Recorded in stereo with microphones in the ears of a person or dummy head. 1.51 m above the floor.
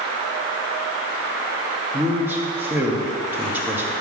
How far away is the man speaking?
About 1.2 m.